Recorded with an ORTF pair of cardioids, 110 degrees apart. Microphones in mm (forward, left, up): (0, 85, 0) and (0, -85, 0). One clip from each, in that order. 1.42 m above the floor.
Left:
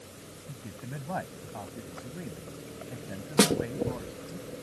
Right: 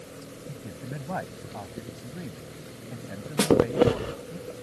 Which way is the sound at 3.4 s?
25° left.